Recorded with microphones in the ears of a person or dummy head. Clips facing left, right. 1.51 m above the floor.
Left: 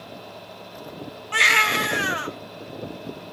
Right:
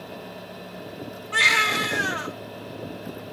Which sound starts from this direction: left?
A baby crying, at 1.3 s.